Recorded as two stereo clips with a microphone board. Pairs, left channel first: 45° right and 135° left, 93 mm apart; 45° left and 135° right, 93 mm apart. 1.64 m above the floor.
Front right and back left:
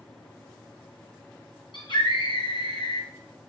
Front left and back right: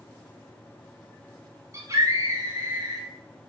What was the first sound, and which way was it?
A scream, 80° right.